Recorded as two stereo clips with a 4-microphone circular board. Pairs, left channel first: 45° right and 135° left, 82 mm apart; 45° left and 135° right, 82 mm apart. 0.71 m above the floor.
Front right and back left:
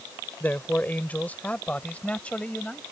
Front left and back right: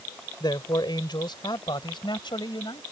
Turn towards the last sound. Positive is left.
turn(degrees=30)